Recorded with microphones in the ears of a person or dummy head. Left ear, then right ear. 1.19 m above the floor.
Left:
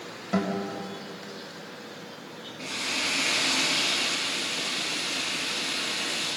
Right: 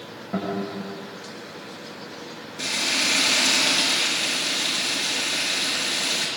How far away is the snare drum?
I don't hear a snare drum.